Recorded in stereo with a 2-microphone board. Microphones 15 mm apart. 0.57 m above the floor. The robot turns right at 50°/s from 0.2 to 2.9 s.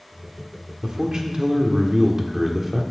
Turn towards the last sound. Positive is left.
turn(degrees=-5)